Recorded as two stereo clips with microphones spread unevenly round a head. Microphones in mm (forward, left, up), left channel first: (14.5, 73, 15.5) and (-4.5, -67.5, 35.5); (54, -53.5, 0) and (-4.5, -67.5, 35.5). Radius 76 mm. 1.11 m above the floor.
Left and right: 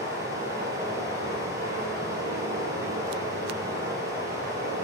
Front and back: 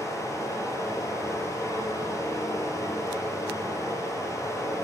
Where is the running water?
30° right, 3.5 m.